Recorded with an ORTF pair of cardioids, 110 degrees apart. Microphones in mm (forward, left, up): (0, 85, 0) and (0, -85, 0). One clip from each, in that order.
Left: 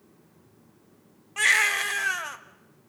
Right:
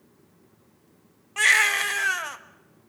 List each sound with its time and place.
1.4 s a baby crying: 10° right, 1.5 m